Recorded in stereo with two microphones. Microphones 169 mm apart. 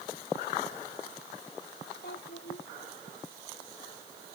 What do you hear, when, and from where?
2.0 s a child speaking: 80° left